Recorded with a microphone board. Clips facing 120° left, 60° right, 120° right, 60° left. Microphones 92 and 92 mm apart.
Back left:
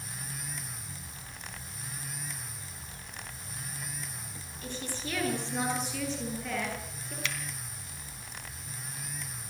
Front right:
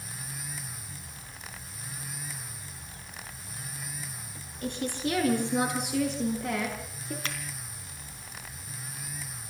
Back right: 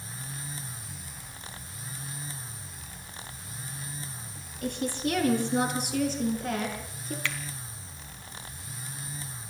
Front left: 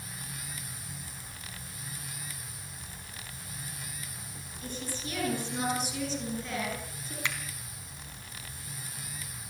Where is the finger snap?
10° right, 3 m.